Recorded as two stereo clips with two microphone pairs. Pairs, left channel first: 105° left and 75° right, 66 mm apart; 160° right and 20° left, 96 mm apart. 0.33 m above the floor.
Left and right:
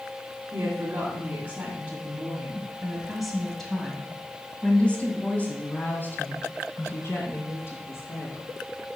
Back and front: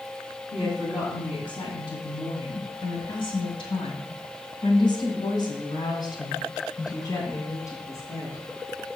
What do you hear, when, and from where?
0.5 s a woman speaking: 125° right, 2.5 m; by 8.4 s 145° left, 3.5 m